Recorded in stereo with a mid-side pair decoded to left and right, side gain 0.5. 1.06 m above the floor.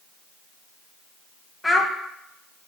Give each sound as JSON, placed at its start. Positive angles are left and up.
{"t": 1.6, "sound": "a child speaking", "azimuth_deg": 15, "distance_m": 0.7}